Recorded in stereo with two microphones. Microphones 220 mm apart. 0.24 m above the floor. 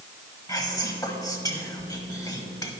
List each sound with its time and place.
0.5 s whispering: 15° left (ahead or behind), 1.2 m